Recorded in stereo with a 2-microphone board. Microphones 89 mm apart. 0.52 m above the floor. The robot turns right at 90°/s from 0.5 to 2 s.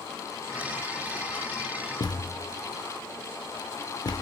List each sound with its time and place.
2.0 s a thud: 50° left (ahead or behind), 0.5 m